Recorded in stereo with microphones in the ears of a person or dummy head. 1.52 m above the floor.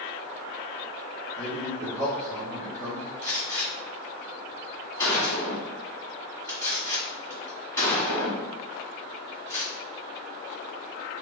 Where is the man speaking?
25° right (ahead or behind), 1.8 m.